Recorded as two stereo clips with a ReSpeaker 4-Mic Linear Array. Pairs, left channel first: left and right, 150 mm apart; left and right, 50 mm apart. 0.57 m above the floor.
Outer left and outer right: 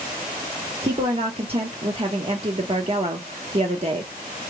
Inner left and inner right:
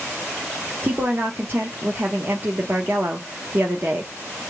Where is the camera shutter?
No camera shutter in this recording.